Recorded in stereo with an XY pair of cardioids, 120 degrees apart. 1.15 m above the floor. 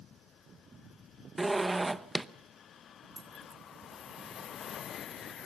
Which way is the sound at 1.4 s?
15° right.